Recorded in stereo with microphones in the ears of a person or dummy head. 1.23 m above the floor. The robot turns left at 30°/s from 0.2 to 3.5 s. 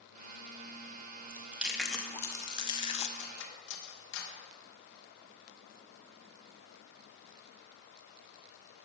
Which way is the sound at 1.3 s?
15° right (ahead or behind).